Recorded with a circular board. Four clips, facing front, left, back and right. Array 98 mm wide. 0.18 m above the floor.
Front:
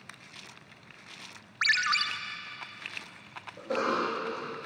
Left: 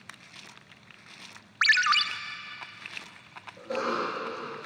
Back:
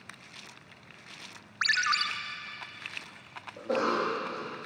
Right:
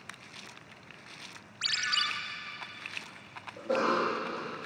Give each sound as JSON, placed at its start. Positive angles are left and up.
{"t": 1.6, "sound": "a ringtone", "azimuth_deg": 100, "distance_m": 1.4}
{"t": 3.6, "sound": "a cough", "azimuth_deg": -145, "distance_m": 7.5}